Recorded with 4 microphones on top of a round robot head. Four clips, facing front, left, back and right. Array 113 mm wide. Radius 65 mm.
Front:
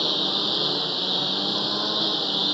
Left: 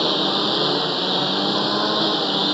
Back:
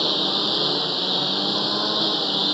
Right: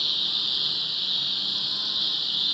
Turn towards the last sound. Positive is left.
turn(degrees=100)